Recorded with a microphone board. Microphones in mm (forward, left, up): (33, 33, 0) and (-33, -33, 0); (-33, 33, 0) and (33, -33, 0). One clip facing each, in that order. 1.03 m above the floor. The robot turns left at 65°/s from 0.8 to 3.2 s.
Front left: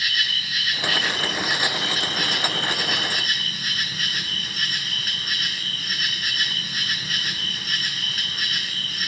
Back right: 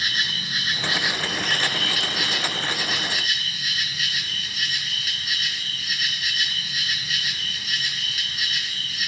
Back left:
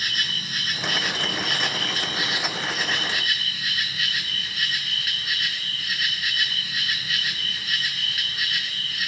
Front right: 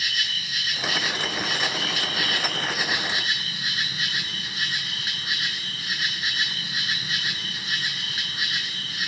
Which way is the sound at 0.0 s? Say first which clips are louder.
Even, back left 1 dB; 170° left.